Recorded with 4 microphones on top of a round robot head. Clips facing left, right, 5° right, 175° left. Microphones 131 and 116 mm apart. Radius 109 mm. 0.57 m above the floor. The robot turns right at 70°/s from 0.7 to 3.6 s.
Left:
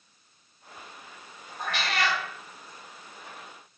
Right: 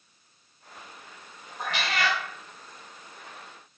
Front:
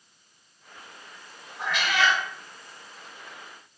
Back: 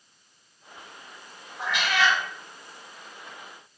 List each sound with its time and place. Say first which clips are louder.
1.6 s a cat meowing: even, even; 110° right, 0.9 m; by 2.2 s 65° right, 0.9 m